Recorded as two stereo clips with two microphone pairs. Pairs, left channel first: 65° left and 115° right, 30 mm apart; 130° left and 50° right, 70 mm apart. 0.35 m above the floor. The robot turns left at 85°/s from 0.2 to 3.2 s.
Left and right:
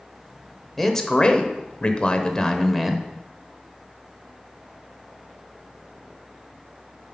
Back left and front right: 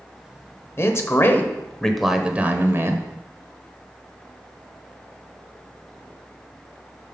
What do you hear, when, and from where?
0.8 s a man speaking: 145° left, 1.0 m; by 3.0 s 50° right, 1.0 m